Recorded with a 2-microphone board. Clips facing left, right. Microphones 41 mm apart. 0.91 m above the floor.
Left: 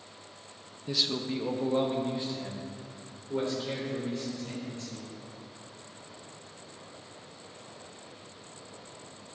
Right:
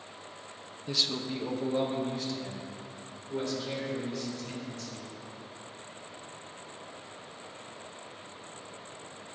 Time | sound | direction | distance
0.9 | a man speaking | centre (ahead or behind) | 0.7 m